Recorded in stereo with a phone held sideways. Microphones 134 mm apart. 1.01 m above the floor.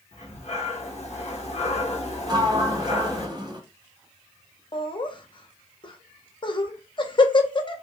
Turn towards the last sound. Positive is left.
turn(degrees=40)  # may be behind; listen again after turning